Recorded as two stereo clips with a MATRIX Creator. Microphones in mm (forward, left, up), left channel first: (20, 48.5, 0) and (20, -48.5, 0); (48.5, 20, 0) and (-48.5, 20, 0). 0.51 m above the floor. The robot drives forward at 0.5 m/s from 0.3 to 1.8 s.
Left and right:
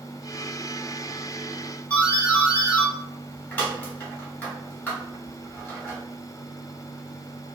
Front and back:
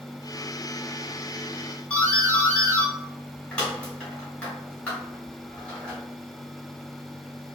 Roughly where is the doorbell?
Ahead left.